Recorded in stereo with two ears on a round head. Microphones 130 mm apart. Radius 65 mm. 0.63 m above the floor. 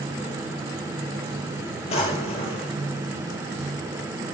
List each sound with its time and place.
1.9 s a drawer: 45° left (ahead or behind), 5 m